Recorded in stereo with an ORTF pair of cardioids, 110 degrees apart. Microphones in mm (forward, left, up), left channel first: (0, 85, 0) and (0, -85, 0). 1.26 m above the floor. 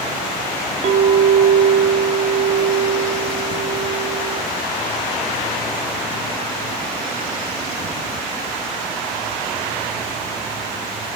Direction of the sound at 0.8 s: 45° right.